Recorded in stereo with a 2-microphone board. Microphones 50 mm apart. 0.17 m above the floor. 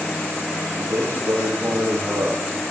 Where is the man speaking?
60° right (ahead or behind), 8 m.